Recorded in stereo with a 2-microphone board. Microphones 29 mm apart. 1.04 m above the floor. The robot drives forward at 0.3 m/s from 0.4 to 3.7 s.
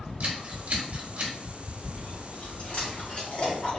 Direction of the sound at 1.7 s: 55° left (ahead or behind).